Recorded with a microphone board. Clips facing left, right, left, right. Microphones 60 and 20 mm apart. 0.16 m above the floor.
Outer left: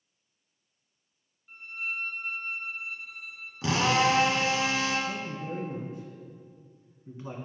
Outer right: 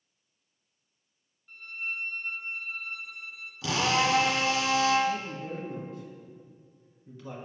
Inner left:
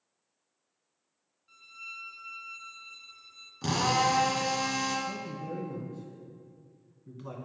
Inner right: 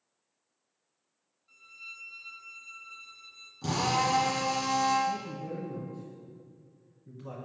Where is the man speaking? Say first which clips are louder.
Outer right 2 dB, inner right 3 dB; 25° left (ahead or behind), 1.8 m.